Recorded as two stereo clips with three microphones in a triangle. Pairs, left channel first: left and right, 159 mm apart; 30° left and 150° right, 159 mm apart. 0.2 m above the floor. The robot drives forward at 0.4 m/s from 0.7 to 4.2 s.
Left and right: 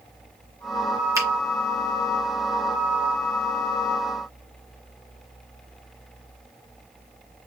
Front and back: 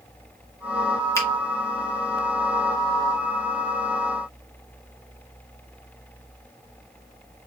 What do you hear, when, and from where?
1.1 s a finger snap: 30° right, 1.6 m